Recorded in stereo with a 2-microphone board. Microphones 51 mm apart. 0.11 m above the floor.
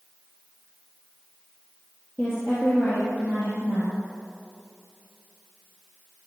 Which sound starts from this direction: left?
A woman speaking, at 2.2 s.